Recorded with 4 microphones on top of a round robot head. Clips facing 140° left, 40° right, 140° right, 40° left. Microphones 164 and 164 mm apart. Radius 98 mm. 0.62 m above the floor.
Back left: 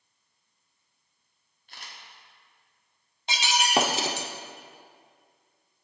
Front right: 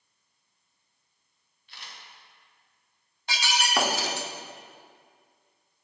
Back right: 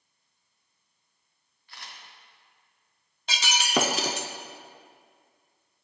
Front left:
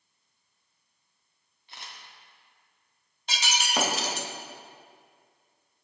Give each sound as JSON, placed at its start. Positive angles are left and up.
{"t": 1.7, "sound": "a camera shutter", "azimuth_deg": 105, "distance_m": 1.4}
{"t": 3.3, "sound": "breaking glass", "azimuth_deg": -150, "distance_m": 0.6}